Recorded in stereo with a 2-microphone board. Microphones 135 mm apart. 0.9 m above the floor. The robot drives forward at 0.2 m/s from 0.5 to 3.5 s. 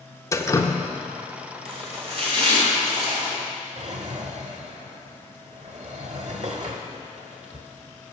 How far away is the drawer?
About 1.1 m.